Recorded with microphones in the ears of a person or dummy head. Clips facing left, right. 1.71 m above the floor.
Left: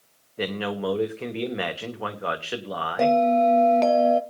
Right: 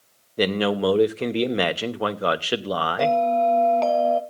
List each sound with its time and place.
0.4 s a man speaking: 55° right (ahead or behind), 1.0 m
3.0 s a bell: 20° left (ahead or behind), 1.0 m